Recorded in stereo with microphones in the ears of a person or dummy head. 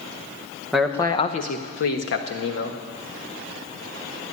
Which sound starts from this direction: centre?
A man speaking, at 0.7 s.